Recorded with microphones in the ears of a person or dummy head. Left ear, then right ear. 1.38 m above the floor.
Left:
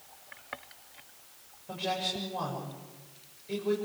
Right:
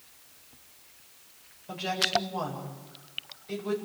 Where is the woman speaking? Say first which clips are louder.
Right 5 dB; 15° right (ahead or behind), 7 m.